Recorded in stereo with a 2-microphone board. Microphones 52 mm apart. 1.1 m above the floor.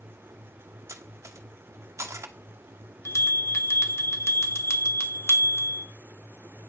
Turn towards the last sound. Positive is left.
turn(degrees=60)  # may be behind; listen again after turning